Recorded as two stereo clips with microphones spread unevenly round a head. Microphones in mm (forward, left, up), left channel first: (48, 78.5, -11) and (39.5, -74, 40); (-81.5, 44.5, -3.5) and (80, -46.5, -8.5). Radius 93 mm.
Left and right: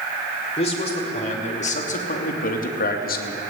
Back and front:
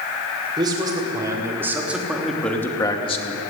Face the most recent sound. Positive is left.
turn(degrees=100)